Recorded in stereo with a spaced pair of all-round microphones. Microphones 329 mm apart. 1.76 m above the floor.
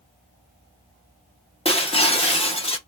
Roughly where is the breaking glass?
Centre.